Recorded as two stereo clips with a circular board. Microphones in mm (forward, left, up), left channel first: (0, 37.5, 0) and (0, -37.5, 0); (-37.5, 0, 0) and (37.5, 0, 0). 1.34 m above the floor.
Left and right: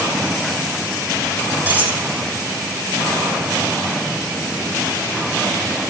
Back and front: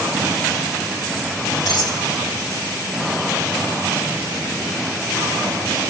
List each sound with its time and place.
1.7 s cutlery clinking: 155° right, 3.5 m